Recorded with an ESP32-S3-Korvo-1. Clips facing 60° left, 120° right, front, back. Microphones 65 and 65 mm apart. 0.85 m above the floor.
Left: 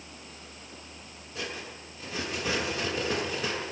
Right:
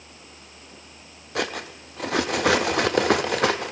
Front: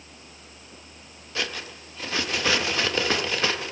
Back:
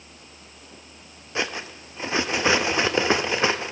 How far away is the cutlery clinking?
About 0.5 m.